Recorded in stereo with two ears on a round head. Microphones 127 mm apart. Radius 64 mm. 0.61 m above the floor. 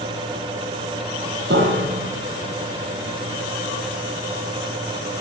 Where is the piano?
90° right, 9 m.